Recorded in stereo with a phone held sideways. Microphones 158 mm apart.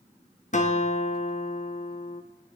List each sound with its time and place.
0.5 s a guitar: 50° left (ahead or behind), 0.8 m